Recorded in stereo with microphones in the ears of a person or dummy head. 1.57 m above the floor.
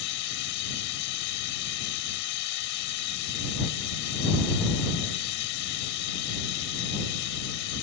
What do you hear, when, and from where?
0.0 s running water: 65° left (ahead or behind)